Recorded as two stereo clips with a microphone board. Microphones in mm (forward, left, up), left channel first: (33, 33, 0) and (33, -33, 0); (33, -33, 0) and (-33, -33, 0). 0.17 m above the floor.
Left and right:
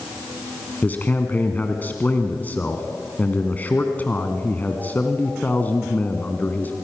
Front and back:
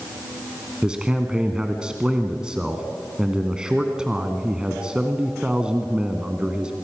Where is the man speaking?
115° left, 1.4 m.